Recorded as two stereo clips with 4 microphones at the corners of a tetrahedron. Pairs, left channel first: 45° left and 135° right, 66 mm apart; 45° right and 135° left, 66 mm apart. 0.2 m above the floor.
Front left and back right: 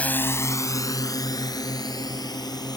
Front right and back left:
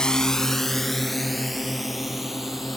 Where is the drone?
15° left; by 2.8 s 45° left.